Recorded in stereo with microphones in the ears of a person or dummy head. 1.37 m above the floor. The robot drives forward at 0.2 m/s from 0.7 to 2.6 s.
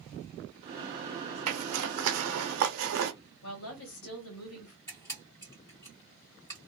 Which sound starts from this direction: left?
A woman speaking, at 3.4 s.